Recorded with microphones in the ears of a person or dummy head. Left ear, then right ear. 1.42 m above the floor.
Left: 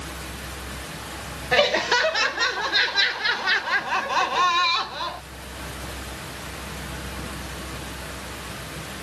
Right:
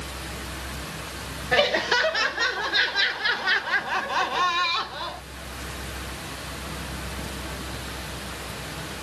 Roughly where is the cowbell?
I don't hear a cowbell.